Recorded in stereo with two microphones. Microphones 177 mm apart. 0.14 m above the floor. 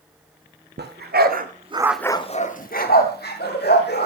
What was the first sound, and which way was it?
A dog barking, 75° right (ahead or behind).